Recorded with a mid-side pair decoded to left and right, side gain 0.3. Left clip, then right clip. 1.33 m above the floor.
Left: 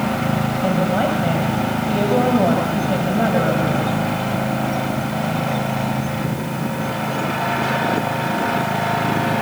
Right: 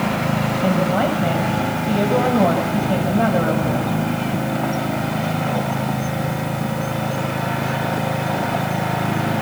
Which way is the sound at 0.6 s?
5° right.